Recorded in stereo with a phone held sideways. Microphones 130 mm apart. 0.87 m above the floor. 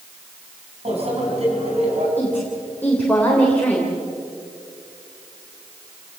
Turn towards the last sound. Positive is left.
turn(degrees=15)  # may be behind; listen again after turning